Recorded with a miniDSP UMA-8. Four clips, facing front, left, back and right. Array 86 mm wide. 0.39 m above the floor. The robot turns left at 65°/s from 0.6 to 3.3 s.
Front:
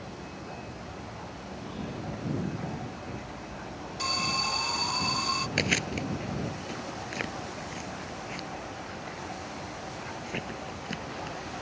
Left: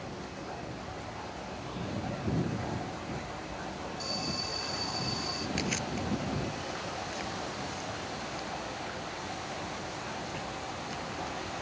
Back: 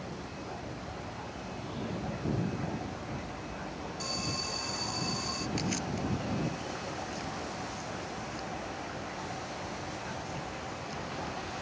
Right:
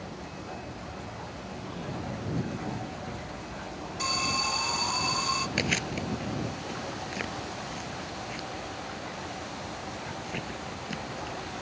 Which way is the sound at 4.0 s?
50° right.